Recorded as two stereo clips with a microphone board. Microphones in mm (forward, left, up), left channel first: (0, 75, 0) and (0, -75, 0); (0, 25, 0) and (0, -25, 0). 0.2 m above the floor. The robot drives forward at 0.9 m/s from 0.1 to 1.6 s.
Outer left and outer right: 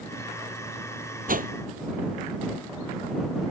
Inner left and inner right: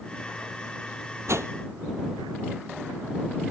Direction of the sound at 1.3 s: 70° right (ahead or behind).